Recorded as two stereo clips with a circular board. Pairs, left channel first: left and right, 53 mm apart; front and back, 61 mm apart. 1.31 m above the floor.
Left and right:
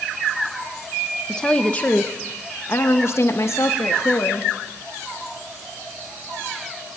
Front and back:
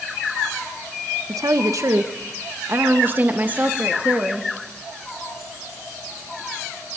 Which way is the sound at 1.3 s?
165° left.